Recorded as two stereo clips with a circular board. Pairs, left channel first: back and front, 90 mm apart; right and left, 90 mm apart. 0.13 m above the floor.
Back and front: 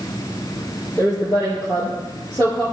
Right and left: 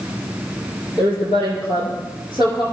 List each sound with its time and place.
1.0 s a woman speaking: 120° right, 3 m